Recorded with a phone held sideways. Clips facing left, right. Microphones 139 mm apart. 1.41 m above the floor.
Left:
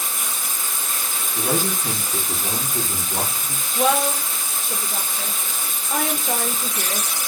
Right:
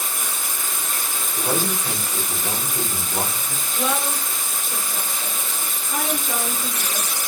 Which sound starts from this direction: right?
Running water, at 0.0 s.